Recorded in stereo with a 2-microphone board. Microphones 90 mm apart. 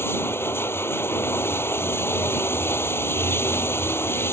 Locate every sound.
0.0 s running water: 25° left (ahead or behind)